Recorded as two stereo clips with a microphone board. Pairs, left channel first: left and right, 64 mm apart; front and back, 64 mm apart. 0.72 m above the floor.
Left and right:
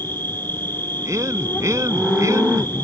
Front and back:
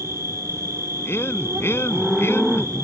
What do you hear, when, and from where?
0.0 s an insect: 140° left
1.1 s a man speaking: 55° right